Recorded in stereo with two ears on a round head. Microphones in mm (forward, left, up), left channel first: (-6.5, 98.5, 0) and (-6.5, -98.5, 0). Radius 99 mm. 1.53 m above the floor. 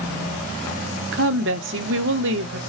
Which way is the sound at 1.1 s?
60° right (ahead or behind).